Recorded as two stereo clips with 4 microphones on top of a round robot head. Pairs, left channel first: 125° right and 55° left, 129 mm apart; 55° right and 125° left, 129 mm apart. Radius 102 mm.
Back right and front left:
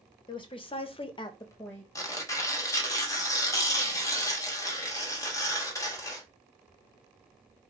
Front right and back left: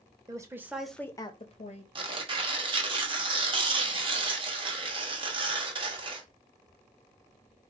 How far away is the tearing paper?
About 1.2 m.